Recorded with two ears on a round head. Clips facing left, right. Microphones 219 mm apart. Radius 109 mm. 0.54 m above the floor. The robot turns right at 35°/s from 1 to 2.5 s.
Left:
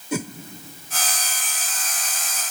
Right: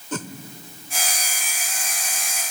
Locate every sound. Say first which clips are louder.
0.1 s a whoosh: left 4 dB; 10° left (ahead or behind), 1.0 m